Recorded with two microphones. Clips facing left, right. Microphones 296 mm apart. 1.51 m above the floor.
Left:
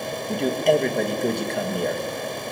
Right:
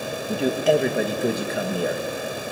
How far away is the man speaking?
About 2.5 m.